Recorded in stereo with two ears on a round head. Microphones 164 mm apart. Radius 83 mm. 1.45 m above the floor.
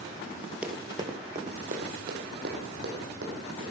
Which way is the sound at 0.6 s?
5° right (ahead or behind).